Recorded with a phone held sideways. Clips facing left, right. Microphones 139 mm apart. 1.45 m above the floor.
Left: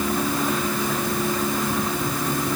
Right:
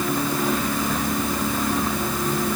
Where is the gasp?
No gasp in this recording.